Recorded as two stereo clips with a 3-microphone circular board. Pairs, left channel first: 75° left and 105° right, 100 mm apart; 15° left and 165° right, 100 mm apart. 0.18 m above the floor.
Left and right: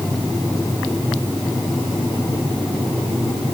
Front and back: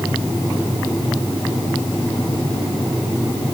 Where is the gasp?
No gasp in this recording.